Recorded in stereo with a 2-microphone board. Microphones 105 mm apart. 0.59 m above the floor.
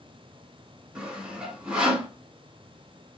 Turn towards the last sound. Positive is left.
turn(degrees=-10)  # may be behind; listen again after turning